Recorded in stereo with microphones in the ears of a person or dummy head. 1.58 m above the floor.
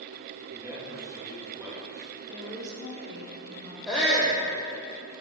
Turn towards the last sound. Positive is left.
turn(degrees=0)  # may be behind; listen again after turning